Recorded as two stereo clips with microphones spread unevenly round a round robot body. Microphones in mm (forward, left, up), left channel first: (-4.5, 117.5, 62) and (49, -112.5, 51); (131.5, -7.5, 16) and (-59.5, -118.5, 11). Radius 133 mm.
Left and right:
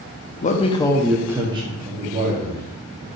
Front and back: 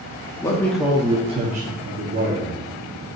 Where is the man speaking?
90° left, 0.6 m; by 3.1 s 115° right, 1.2 m.